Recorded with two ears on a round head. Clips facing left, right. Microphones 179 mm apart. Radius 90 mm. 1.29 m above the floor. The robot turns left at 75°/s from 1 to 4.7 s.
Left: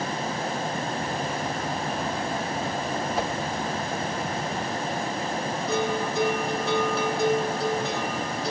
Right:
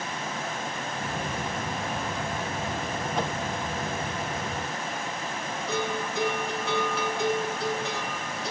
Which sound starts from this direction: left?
A bell, at 5.7 s.